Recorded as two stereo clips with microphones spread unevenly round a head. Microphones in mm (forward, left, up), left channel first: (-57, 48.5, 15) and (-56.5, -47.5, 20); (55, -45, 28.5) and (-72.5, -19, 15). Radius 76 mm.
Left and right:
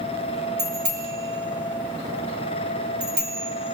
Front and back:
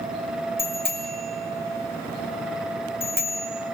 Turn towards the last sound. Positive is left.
turn(degrees=-85)